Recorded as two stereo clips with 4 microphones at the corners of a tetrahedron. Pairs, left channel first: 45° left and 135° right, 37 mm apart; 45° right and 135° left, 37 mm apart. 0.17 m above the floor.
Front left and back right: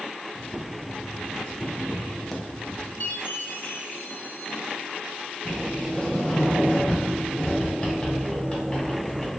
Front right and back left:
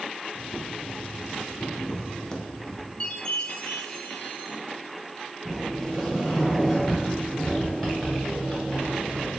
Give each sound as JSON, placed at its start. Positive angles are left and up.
{"t": 0.3, "sound": "boiling", "azimuth_deg": -20, "distance_m": 0.6}
{"t": 3.0, "sound": "a chime", "azimuth_deg": 15, "distance_m": 0.6}
{"t": 5.5, "sound": "a sliding door", "azimuth_deg": 35, "distance_m": 1.5}